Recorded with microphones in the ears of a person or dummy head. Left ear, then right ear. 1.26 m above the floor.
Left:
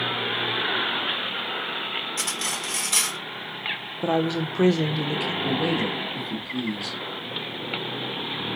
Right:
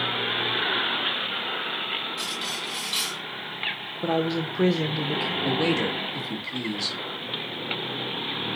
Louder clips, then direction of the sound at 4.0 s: Left 1 dB; 10° left (ahead or behind).